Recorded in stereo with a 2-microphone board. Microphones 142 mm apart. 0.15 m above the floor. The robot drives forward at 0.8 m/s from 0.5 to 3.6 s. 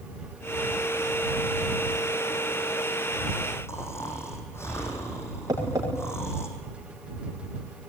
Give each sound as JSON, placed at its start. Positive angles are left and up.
{"t": 3.7, "sound": "snoring", "side_deg": 20, "distance_m": 4.0}
{"t": 5.5, "sound": "tapping", "side_deg": -25, "distance_m": 9.5}